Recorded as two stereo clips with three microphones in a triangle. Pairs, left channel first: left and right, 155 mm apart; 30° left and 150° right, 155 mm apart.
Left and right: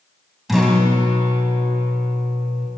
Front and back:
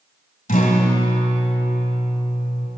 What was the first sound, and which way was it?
A guitar, straight ahead.